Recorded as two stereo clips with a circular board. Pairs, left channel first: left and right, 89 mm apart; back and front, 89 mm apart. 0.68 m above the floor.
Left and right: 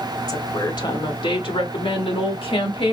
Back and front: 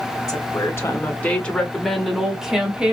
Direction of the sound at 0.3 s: 130° left.